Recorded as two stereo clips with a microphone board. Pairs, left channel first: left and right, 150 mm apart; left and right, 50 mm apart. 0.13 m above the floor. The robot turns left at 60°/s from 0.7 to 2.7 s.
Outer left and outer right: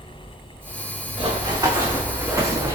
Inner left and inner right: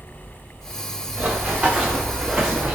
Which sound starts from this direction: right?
Running footsteps, at 1.2 s.